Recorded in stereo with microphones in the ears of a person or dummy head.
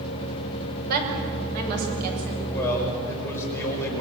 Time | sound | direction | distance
0.9 | a woman speaking | 55° right (ahead or behind) | 5.5 m
2.4 | a man speaking | 15° left (ahead or behind) | 5 m